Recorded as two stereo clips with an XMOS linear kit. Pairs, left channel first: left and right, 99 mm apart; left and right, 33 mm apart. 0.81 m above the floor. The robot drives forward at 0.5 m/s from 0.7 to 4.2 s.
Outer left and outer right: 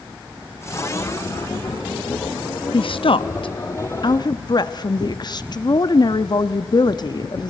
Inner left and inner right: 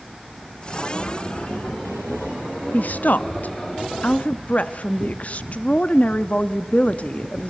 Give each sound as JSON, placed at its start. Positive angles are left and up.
{"t": 2.7, "sound": "a woman speaking", "side_deg": 60, "distance_m": 0.8}